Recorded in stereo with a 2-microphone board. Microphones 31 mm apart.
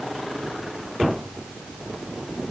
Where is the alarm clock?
No alarm clock in this recording.